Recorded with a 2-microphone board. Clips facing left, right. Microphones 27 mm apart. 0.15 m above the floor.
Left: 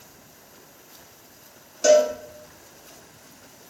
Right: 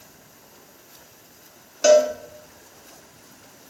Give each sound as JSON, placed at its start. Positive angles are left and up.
{"t": 1.8, "sound": "a cowbell", "side_deg": -30, "distance_m": 0.5}